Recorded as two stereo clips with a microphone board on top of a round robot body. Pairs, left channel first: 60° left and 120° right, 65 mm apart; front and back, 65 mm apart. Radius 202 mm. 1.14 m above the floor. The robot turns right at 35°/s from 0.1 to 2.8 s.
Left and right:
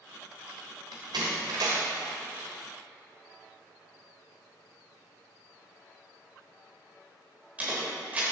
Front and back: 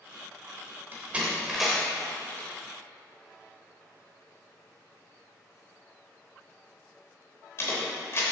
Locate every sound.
0.9 s a door slam: 115° right, 0.7 m; by 8.2 s 50° right, 0.7 m